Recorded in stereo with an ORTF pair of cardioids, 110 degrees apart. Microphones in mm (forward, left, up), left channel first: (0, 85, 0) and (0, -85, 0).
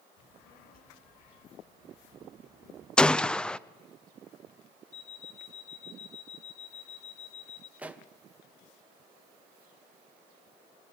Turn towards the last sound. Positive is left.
turn(degrees=-10)